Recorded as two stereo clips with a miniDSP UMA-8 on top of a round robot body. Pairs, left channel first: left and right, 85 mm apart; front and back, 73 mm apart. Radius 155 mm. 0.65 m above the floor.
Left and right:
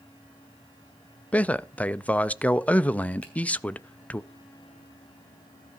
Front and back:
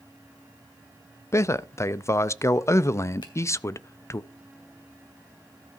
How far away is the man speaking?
About 0.6 m.